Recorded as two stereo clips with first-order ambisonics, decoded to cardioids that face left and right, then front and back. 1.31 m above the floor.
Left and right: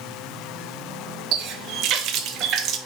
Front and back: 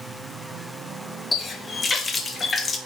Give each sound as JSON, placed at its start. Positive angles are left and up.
{"t": 1.3, "sound": "a running tap", "azimuth_deg": -70, "distance_m": 0.7}